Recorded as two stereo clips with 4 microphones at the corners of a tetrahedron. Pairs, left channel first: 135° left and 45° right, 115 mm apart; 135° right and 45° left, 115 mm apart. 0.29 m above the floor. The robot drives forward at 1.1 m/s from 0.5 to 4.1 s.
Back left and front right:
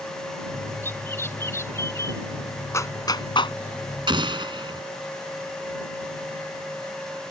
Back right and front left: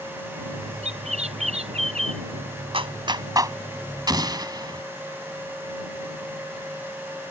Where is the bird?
65° left; by 2.2 s 70° left.